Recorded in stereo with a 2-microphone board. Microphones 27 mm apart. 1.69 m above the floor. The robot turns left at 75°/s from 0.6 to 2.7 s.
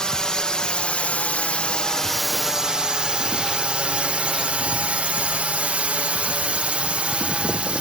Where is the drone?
35° left (ahead or behind); by 7.8 s 50° right (ahead or behind).